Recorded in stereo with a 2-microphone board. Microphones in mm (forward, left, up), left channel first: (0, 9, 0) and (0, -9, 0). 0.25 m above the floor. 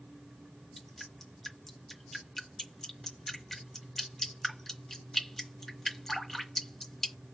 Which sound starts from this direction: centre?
Dripping, at 0.8 s.